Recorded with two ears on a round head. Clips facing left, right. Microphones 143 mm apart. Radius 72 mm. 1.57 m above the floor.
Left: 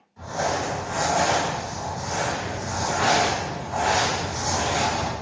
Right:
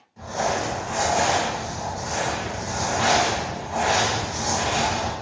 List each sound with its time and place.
0.2 s crumpling: 25° right (ahead or behind), 1.1 m